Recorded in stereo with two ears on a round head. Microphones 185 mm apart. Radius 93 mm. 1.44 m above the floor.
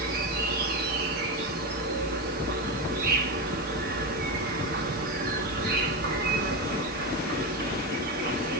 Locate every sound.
0.0 s an insect: 45° right (ahead or behind), 1.0 m